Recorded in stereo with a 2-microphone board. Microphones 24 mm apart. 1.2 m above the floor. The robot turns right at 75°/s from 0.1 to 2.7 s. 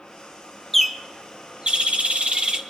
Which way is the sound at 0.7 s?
170° left.